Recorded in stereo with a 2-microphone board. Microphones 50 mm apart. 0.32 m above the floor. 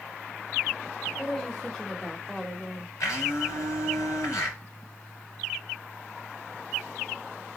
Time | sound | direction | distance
1.2 | a woman speaking | 5° left (ahead or behind) | 0.9 m
3.0 | a blender | 70° left (ahead or behind) | 3 m